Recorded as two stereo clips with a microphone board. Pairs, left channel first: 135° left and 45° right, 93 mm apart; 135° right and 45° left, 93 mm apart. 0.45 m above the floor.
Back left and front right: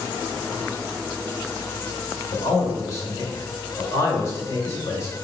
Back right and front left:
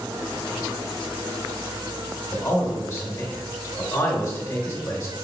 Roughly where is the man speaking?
Behind.